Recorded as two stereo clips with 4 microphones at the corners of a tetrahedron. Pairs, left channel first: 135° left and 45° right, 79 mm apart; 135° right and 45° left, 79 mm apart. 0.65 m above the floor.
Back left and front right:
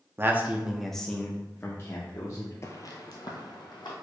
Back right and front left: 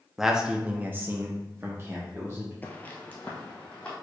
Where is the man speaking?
40° right, 0.7 m; by 2.5 s 100° left, 1.2 m.